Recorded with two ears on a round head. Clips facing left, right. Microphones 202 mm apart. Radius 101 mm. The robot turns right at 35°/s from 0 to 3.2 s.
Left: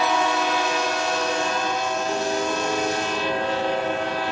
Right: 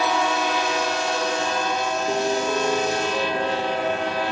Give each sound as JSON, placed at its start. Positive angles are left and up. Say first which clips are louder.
{"t": 2.1, "sound": "a piano", "louder": "right 3 dB", "azimuth_deg": -70, "distance_m": 5.5}